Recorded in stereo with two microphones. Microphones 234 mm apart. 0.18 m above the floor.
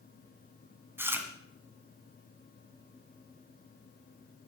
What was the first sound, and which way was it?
Chewing, 10° right (ahead or behind).